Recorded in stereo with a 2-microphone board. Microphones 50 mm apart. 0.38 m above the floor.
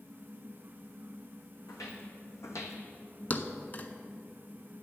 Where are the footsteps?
80° left, 1.6 m; by 2.8 s 65° left (ahead or behind), 1.0 m.